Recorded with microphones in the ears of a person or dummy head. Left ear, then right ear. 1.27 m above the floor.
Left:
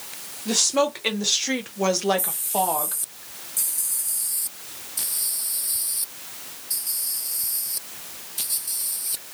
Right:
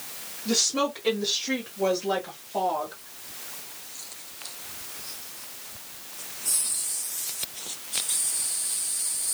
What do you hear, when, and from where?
0.5 s a woman speaking: 40° left (ahead or behind), 1.0 m; by 3.0 s 45° left (ahead or behind), 1.0 m